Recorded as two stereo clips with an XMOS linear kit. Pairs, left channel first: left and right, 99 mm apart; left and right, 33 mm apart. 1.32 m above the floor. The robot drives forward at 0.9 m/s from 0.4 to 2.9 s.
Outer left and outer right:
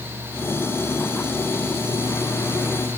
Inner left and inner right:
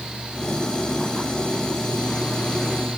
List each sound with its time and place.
Only background noise.